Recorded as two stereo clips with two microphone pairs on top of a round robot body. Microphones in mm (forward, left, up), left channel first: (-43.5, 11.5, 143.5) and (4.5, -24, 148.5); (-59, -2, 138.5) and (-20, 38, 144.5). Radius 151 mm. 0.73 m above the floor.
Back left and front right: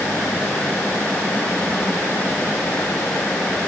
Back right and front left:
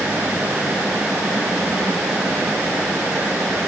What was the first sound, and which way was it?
Only background noise.